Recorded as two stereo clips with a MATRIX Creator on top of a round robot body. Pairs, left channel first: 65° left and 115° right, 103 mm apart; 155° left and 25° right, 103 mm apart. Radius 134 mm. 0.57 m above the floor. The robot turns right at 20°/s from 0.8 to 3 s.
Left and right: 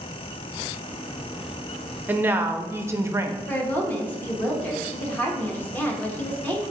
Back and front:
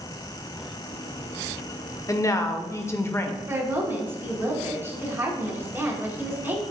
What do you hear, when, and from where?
2.1 s a woman speaking: 175° right, 0.7 m; by 3.4 s 155° right, 0.7 m
3.5 s a woman speaking: 20° left, 1.1 m